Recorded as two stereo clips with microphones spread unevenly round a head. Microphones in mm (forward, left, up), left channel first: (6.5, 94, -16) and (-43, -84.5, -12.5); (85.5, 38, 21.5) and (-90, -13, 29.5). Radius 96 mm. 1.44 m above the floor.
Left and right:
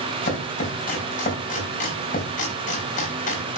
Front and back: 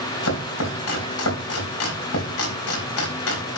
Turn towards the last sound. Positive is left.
turn(degrees=20)